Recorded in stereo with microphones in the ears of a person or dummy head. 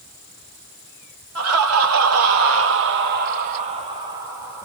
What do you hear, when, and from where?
1.4 s laughter: 80° right, 1.5 m; by 4.6 s 10° right (ahead or behind), 1.2 m